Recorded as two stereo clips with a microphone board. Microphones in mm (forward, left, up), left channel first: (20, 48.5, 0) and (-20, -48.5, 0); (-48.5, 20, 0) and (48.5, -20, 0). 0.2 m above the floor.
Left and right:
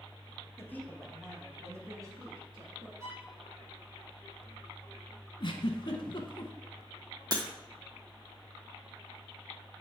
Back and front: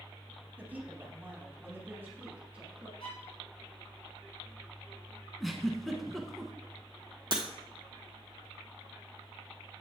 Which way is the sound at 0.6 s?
35° left.